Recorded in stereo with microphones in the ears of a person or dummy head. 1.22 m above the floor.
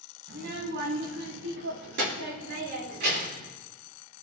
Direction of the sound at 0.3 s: 65° right (ahead or behind).